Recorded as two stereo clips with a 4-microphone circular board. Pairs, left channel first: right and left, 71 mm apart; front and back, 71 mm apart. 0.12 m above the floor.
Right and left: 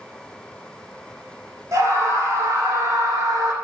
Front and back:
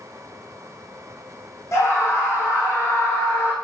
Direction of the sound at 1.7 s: 45° left.